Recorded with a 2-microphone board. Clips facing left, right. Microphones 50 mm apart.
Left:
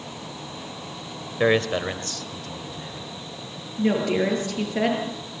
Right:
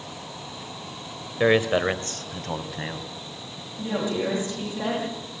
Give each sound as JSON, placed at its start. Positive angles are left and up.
{"t": 1.4, "sound": "a man speaking", "side_deg": 5, "distance_m": 1.1}
{"t": 3.8, "sound": "a woman speaking", "side_deg": 60, "distance_m": 7.5}